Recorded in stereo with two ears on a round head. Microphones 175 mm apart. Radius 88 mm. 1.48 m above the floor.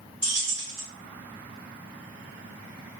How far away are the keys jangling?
About 1.9 m.